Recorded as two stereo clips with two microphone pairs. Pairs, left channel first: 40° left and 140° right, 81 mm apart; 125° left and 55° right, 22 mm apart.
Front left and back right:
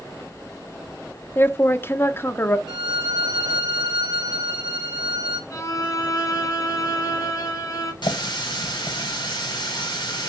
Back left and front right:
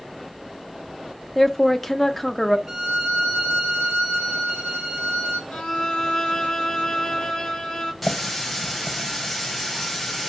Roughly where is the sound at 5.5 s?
Left.